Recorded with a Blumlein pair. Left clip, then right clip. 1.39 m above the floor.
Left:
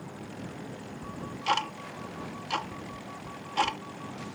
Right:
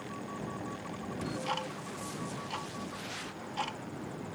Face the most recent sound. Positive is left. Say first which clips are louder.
# left 6 dB
turn(degrees=65)